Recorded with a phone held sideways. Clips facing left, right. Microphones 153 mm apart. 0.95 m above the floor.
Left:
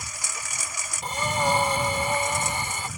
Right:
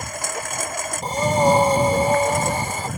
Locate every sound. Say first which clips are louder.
0.0 s a lawn mower: right 11 dB; 60° right (ahead or behind)
1.0 s breathing: right 8 dB; 40° right (ahead or behind)